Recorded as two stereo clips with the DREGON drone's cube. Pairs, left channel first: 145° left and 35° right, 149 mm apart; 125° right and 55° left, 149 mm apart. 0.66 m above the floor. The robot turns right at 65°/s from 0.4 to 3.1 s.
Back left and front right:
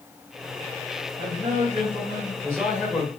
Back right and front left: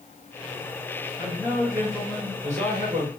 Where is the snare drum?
No snare drum in this recording.